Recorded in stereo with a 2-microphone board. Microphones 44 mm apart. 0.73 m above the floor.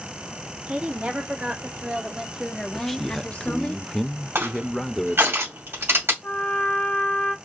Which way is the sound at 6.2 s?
50° left (ahead or behind).